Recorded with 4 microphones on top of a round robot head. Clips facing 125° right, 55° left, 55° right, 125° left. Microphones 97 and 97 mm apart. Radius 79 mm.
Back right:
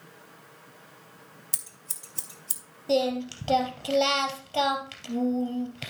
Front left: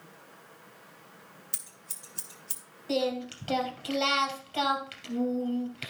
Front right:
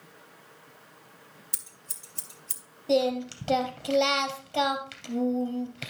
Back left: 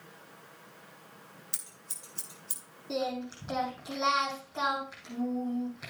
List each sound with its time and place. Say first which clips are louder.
1.5 s scissors: back right 2 dB, even; 90° right, 2.5 m
2.9 s singing: back right 4 dB, front right 9 dB; 65° right, 2.5 m